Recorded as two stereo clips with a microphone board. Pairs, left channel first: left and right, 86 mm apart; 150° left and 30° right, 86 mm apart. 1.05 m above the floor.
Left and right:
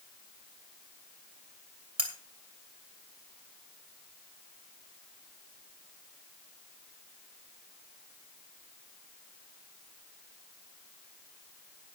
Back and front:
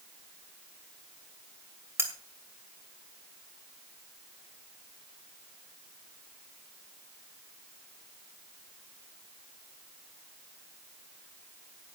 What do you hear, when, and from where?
2.0 s cutlery clinking: 90° right, 2.5 m